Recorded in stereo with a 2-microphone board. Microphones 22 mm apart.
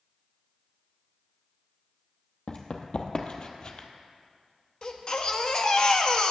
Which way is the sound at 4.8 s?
45° left (ahead or behind).